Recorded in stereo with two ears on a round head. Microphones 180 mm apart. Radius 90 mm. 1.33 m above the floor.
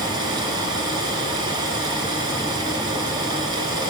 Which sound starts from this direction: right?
Running water, at 0.0 s.